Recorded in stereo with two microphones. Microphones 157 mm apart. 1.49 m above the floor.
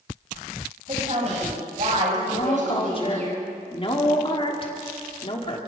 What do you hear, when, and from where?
0.9 s a woman speaking: 45° right (ahead or behind), 8 m; by 3.3 s 50° right (ahead or behind), 9 m
2.3 s a woman speaking: 35° left (ahead or behind), 3 m